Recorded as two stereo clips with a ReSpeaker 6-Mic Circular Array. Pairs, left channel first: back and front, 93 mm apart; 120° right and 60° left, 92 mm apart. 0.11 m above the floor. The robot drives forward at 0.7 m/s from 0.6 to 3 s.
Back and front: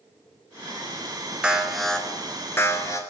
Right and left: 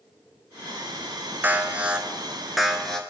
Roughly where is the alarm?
Ahead left.